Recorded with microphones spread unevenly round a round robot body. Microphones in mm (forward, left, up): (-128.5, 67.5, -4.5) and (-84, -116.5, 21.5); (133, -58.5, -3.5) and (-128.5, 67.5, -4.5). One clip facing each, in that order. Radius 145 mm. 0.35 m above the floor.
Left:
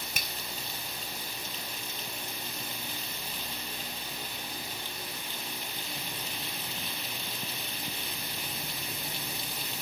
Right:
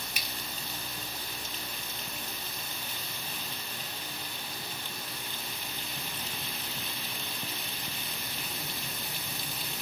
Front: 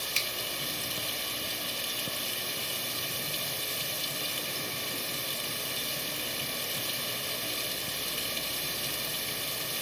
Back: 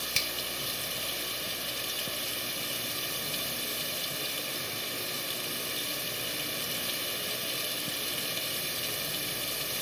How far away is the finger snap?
About 1.4 m.